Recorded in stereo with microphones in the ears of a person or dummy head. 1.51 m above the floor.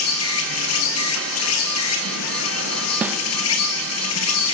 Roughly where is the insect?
Left.